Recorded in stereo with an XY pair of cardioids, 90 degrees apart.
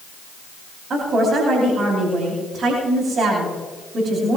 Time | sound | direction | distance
0.9 | a woman speaking | 50° right | 9.5 m